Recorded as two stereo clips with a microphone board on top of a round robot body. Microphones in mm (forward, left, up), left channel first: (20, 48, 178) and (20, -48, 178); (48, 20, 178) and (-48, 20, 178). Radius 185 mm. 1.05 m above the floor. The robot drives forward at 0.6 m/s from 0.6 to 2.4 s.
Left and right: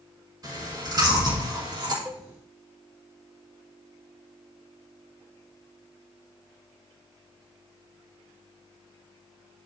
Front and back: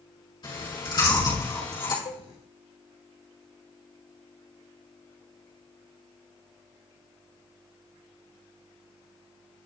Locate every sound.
0.4 s chewing: 40° right, 5 m; by 1.9 s 50° right, 4.5 m
2.0 s a cowbell: 15° right, 0.9 m